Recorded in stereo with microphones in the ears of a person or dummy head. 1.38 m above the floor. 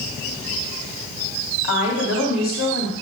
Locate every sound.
1.6 s a woman speaking: 90° left, 3 m